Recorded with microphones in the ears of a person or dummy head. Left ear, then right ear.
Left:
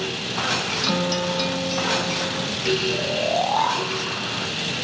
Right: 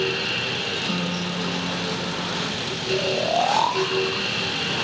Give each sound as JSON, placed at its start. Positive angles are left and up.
{"t": 0.8, "sound": "a guitar", "side_deg": 60, "distance_m": 1.2}
{"t": 2.9, "sound": "snoring", "side_deg": -5, "distance_m": 0.6}